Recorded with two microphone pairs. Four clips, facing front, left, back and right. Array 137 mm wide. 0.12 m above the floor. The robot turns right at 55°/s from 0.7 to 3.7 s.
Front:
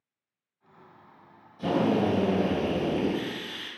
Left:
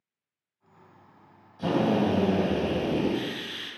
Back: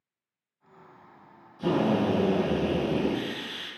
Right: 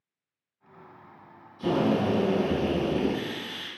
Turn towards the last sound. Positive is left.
turn(degrees=-165)